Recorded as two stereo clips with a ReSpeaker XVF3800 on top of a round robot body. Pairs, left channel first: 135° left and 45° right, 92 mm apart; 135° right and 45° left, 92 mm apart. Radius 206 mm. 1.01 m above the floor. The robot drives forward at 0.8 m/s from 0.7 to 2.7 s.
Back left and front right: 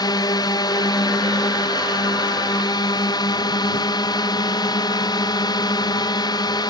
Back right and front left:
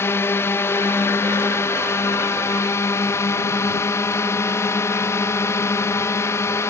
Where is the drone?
165° left; by 6.7 s 170° left.